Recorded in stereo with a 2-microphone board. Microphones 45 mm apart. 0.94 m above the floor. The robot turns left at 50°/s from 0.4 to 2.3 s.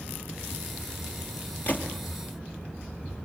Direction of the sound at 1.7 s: 40° left (ahead or behind).